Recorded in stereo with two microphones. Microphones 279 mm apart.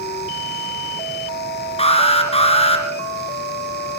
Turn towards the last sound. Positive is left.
turn(degrees=20)  # may be behind; listen again after turning